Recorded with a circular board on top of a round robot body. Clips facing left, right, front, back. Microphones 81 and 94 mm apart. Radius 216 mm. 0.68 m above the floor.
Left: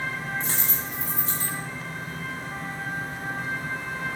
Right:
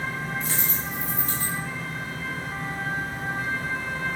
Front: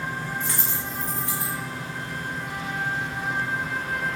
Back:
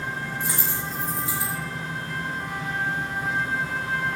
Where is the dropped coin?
100° left, 2 m.